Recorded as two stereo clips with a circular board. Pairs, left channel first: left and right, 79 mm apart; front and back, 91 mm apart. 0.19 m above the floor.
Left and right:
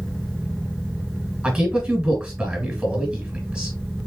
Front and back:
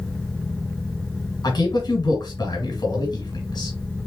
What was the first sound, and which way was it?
A man speaking, 20° right.